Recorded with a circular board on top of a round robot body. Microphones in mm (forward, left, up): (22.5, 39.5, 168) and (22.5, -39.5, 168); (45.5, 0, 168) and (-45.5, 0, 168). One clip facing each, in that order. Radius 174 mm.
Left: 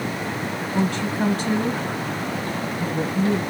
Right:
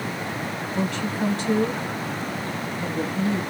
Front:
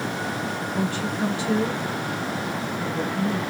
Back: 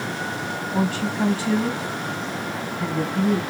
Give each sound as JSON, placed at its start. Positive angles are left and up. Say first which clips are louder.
{"t": 0.7, "sound": "a woman speaking", "louder": "left 3 dB, back 5 dB", "azimuth_deg": 130, "distance_m": 3.0}